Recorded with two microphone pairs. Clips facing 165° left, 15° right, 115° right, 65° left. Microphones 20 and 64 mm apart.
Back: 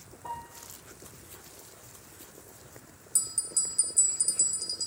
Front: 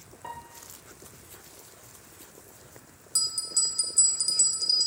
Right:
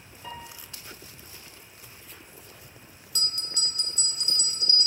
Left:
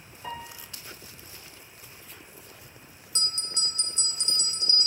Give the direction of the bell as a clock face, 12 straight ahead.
12 o'clock.